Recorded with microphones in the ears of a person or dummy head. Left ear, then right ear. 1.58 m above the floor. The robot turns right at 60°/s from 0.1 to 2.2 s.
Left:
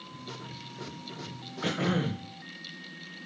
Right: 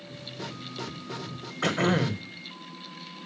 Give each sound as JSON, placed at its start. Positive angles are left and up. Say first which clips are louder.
{"t": 1.6, "sound": "throat clearing", "louder": "right 5 dB", "azimuth_deg": -130, "distance_m": 1.5}